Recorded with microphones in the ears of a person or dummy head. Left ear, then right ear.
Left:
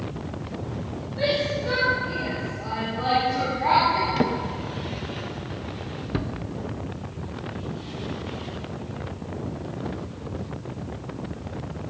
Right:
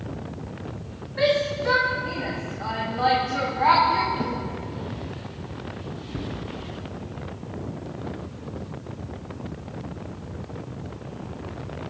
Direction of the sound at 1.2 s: 70° right (ahead or behind).